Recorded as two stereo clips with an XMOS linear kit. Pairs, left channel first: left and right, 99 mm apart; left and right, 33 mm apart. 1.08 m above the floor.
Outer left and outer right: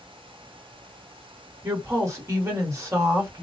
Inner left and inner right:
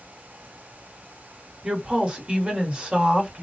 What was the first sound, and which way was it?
A woman speaking, 30° right (ahead or behind).